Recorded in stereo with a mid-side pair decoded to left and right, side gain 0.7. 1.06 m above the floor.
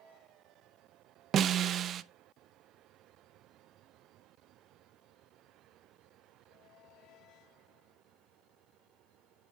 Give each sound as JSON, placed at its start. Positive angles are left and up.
{"t": 1.3, "sound": "a snare drum", "azimuth_deg": -40, "distance_m": 0.5}